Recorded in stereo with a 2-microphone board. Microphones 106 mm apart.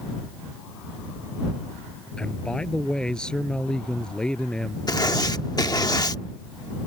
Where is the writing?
40° left (ahead or behind).